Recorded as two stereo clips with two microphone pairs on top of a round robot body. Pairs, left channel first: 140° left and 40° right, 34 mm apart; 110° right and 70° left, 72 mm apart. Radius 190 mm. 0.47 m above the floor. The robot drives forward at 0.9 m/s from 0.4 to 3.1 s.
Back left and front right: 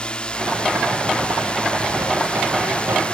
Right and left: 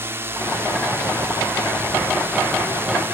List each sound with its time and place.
0.0 s a drone: 85° left; by 3.1 s 90° left